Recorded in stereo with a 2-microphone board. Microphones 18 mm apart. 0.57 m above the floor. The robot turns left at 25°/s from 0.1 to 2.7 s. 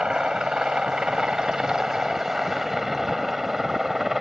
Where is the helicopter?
65° right (ahead or behind); by 4.2 s 20° right (ahead or behind).